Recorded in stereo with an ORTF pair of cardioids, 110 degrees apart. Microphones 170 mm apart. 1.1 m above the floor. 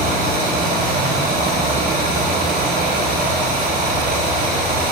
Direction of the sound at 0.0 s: 65° right.